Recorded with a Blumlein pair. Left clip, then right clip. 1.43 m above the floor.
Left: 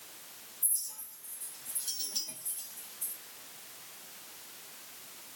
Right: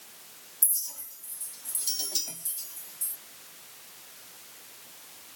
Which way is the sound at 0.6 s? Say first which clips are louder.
Right 6 dB; 50° right.